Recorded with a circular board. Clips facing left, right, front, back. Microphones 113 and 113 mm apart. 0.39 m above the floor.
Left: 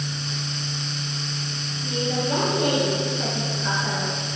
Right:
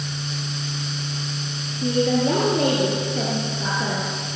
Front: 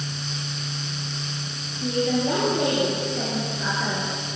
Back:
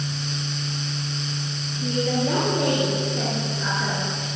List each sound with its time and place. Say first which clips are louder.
1.8 s a woman speaking: right 7 dB, front 1 dB; 90° right, 9.5 m